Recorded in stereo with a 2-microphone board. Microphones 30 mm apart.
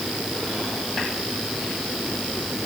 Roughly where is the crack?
I don't hear a crack.